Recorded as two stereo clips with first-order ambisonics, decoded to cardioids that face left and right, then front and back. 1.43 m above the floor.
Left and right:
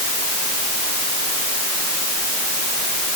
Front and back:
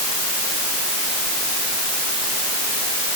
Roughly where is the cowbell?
I don't hear a cowbell.